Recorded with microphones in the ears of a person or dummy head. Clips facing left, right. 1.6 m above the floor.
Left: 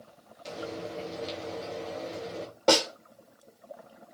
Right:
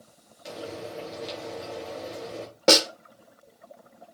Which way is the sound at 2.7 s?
30° right (ahead or behind).